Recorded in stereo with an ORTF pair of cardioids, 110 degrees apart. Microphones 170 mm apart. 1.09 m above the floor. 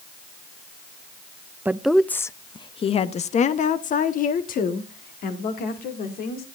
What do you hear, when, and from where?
1.6 s a woman speaking: 10° right, 0.6 m; by 6.5 s 65° left, 2.5 m